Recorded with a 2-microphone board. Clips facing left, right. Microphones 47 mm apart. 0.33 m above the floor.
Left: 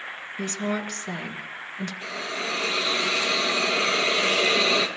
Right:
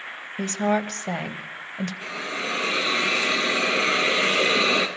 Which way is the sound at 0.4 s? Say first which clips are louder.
Right 5 dB; 50° right (ahead or behind).